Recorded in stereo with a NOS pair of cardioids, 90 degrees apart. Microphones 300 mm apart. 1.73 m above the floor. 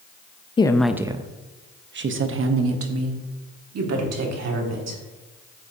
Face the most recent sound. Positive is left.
turn(degrees=-60)